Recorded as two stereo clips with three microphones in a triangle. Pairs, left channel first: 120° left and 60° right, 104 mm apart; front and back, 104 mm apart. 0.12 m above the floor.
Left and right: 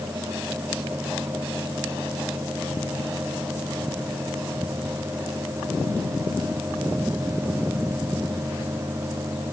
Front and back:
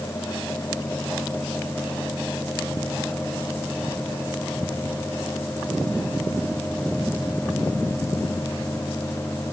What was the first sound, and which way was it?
Only background noise.